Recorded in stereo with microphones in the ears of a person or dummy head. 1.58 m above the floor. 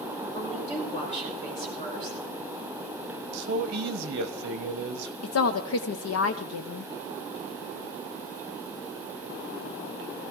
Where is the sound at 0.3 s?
35° left (ahead or behind), 5.5 m.